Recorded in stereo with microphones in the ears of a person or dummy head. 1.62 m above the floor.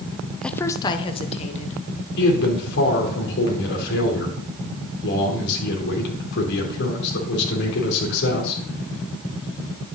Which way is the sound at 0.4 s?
5° left (ahead or behind).